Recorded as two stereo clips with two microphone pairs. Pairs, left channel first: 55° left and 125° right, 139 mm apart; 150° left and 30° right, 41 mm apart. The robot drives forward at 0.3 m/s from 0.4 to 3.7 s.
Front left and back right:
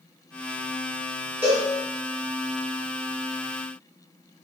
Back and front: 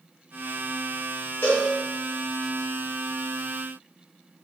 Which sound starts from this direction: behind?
A cowbell, at 1.4 s.